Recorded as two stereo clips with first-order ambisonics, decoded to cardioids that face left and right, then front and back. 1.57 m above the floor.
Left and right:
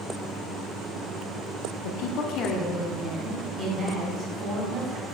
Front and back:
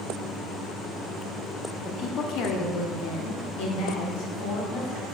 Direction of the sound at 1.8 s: 70° left.